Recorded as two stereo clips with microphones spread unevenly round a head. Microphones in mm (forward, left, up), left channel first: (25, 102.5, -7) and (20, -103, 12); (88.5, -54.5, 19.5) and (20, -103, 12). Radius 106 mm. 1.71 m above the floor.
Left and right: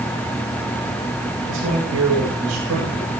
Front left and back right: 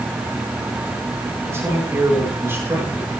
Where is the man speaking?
85° right, 9 m; by 3.1 s 80° right, 10 m.